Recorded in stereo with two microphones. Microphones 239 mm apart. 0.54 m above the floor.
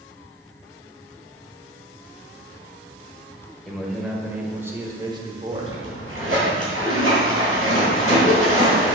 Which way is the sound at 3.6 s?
Centre (ahead or behind).